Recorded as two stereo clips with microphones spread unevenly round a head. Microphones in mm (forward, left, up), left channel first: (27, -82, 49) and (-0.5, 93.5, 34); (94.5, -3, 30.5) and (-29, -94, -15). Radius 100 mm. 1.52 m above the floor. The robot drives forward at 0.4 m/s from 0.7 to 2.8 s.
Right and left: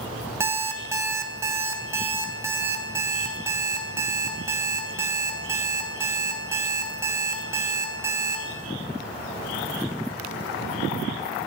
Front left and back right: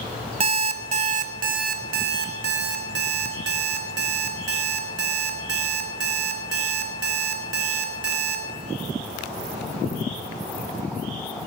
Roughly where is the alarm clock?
Behind.